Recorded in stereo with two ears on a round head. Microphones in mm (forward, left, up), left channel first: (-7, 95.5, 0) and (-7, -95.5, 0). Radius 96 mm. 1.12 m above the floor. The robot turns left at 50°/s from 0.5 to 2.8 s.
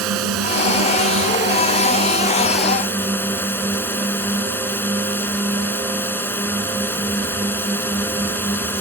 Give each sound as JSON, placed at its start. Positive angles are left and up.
{"t": 0.0, "sound": "a drone", "azimuth_deg": -75}